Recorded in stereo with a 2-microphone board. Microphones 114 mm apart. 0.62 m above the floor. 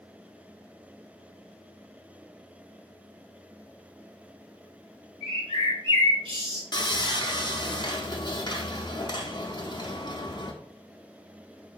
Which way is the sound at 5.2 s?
50° right (ahead or behind).